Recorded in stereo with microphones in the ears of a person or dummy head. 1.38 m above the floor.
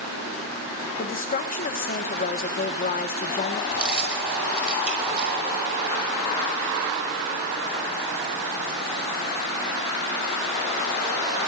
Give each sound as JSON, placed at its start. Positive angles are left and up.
{"t": 1.0, "sound": "a woman speaking", "side_deg": 40, "distance_m": 1.9}
{"t": 3.7, "sound": "keys jangling", "side_deg": -10, "distance_m": 6.0}